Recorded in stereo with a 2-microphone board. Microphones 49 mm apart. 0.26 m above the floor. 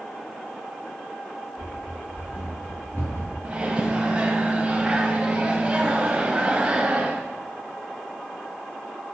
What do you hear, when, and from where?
1.6 s running footsteps: 80° left, 1.5 m; by 3.3 s 70° left (ahead or behind), 2 m
3.4 s a microwave: 30° right (ahead or behind), 0.8 m